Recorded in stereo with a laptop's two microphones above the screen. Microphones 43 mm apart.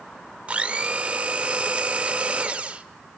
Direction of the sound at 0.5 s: 30° right (ahead or behind).